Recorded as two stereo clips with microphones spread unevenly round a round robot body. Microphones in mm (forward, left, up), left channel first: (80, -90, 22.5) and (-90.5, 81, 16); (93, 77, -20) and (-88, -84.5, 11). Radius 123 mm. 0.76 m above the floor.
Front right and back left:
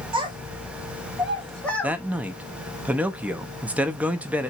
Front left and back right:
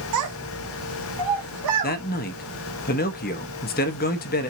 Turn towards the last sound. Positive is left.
turn(degrees=55)